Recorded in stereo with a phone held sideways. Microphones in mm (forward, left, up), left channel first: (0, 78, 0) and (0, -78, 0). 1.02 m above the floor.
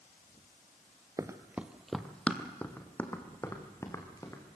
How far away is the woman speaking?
I don't hear a woman speaking.